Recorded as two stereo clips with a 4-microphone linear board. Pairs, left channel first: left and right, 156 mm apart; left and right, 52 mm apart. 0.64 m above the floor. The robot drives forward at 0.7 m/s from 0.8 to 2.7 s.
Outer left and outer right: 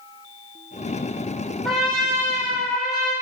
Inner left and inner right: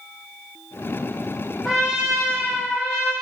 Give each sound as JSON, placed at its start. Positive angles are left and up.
{"t": 1.6, "sound": "a trumpet", "side_deg": 0, "distance_m": 0.9}